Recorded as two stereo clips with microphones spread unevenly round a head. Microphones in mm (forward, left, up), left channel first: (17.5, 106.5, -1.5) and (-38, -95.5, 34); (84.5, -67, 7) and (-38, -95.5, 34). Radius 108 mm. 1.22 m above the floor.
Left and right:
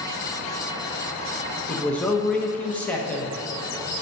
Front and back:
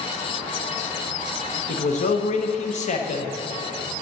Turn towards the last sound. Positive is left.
turn(degrees=-10)